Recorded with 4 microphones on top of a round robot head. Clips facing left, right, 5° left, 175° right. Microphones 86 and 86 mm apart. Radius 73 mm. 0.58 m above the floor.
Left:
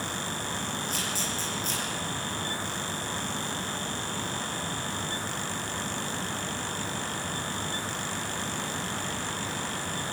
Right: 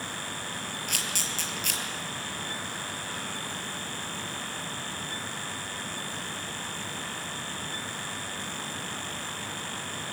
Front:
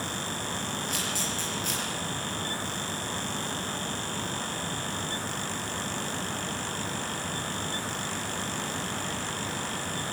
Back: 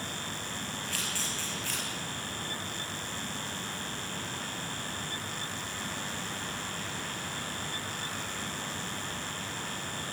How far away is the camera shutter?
About 5.5 m.